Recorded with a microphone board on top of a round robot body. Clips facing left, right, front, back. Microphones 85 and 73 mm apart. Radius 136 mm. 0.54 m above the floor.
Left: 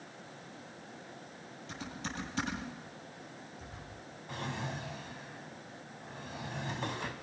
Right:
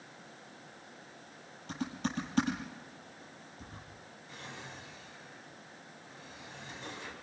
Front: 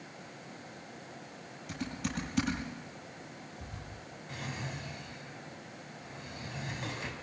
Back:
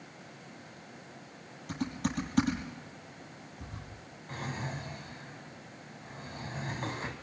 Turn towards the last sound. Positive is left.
turn(degrees=125)